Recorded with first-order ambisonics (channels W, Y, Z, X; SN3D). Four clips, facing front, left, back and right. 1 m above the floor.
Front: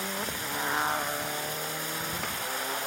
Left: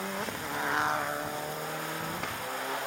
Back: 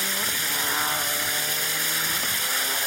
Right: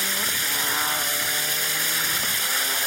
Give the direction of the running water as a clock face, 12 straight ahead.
4 o'clock.